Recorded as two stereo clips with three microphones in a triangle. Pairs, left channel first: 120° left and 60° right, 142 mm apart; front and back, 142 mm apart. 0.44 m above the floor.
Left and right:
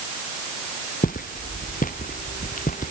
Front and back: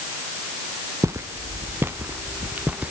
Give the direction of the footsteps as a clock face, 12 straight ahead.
8 o'clock.